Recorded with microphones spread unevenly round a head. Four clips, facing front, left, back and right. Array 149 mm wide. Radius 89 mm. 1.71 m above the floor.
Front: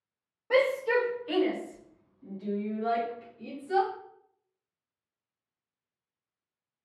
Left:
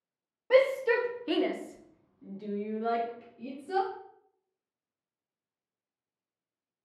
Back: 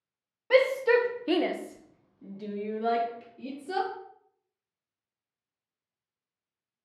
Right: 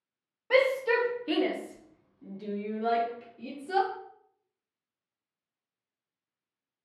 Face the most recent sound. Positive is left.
turn(degrees=-150)